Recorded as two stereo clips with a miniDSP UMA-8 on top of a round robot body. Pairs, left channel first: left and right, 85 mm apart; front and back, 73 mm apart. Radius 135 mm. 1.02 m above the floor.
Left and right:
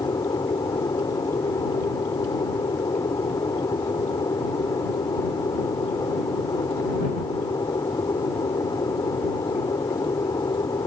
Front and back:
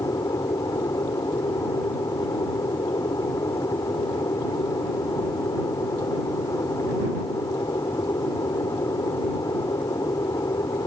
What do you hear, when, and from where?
0.0 s an aircraft: 45° left